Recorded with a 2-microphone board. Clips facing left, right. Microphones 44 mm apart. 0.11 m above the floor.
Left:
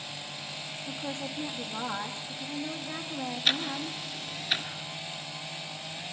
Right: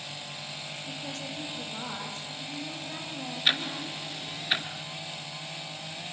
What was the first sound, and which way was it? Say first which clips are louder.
A woman speaking: left 3 dB; 25° left (ahead or behind).